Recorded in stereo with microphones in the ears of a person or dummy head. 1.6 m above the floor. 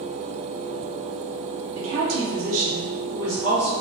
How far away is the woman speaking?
About 1.1 m.